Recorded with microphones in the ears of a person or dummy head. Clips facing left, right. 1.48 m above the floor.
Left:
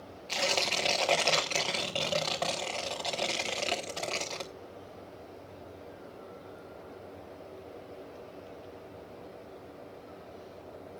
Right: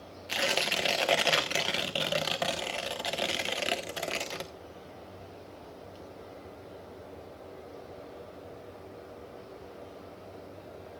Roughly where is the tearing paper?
Centre.